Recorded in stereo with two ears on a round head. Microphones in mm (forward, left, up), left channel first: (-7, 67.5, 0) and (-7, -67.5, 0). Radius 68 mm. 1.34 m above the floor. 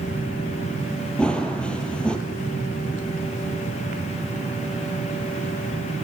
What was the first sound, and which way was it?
Running footsteps, 5° left (ahead or behind).